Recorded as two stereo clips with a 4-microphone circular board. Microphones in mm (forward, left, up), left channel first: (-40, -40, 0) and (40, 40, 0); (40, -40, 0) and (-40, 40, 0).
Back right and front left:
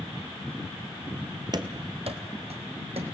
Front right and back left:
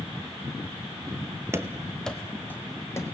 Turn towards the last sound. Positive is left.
turn(degrees=20)